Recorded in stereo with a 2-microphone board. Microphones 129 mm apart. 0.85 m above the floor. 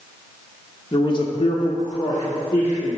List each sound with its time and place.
0.9 s a man speaking: 30° left (ahead or behind), 0.9 m; by 3.0 s 15° left (ahead or behind), 1.8 m